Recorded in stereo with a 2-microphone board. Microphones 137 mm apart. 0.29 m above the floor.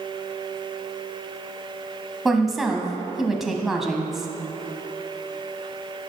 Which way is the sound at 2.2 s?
Centre (ahead or behind).